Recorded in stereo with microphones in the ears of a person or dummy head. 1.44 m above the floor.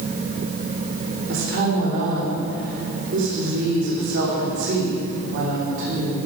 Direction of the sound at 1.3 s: 40° right (ahead or behind).